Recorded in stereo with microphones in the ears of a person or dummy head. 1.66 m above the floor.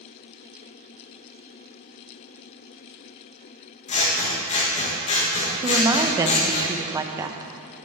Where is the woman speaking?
20° right (ahead or behind), 0.5 m.